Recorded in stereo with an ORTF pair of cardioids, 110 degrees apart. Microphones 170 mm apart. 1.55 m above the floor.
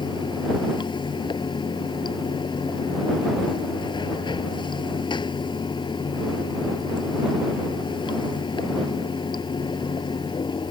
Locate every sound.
0.0 s running water: 30° left